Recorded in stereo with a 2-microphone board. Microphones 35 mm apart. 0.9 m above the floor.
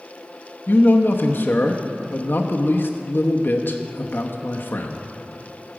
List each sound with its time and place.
0.7 s a man speaking: 65° left (ahead or behind), 0.8 m